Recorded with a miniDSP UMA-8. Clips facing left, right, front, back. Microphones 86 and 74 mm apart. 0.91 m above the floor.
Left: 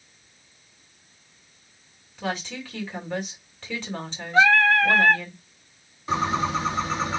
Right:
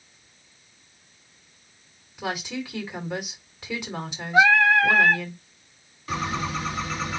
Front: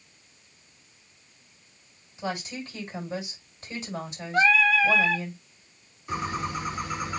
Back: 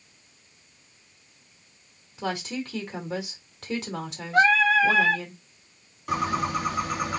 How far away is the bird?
About 1.1 m.